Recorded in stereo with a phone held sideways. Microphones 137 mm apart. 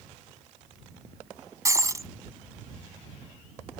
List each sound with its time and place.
1.6 s breaking glass: 25° right (ahead or behind)